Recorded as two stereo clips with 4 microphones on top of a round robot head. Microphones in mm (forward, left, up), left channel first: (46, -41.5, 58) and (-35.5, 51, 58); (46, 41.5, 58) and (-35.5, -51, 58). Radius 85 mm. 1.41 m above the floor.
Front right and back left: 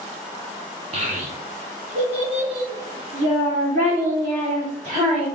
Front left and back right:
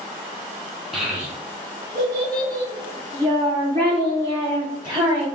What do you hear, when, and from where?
0.9 s a child speaking: 140° left, 0.5 m; by 5.3 s 170° left, 3 m